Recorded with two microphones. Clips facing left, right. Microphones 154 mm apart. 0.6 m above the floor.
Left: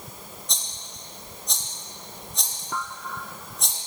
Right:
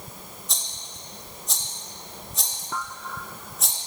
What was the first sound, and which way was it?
A rattle, centre (ahead or behind).